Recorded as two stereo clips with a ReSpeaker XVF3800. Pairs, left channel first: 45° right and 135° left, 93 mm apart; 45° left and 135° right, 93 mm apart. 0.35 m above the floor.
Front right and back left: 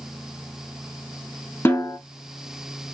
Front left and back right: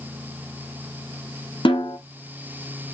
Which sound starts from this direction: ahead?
A snare drum, at 1.6 s.